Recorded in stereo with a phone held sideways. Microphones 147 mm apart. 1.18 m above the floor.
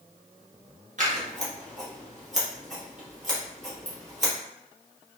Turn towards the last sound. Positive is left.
turn(degrees=-55)  # may be behind; listen again after turning